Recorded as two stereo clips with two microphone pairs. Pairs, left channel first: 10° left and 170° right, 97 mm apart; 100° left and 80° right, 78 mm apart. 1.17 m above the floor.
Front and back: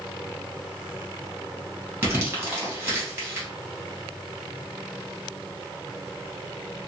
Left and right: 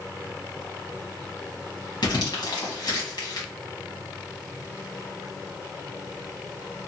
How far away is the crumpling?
About 1.2 m.